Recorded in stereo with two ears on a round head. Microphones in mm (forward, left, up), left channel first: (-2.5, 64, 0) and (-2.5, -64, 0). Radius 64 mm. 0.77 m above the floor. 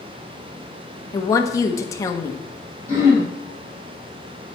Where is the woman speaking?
20° left (ahead or behind), 1.0 m.